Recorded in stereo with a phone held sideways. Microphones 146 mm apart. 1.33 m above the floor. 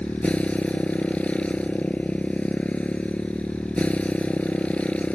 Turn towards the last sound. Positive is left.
turn(degrees=10)  # may be behind; listen again after turning